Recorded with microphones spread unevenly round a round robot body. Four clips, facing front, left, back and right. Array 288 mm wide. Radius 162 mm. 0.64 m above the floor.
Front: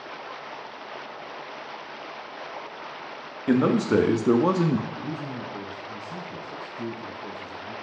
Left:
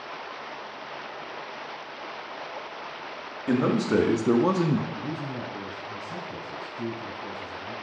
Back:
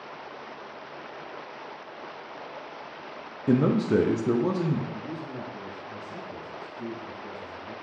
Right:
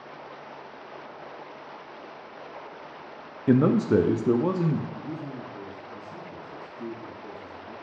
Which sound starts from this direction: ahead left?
A man speaking, at 4.9 s.